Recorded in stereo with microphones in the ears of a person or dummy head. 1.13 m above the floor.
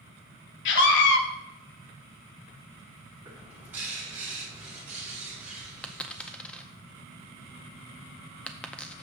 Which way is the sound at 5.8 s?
5° left (ahead or behind).